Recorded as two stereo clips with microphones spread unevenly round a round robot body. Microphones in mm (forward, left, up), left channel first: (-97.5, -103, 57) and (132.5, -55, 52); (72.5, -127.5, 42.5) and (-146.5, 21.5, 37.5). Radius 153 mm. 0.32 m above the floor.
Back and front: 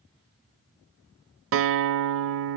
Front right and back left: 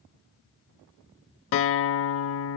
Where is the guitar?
Straight ahead, 0.6 m.